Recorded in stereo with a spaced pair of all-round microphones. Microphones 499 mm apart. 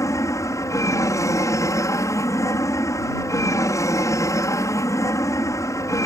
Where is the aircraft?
5° left (ahead or behind).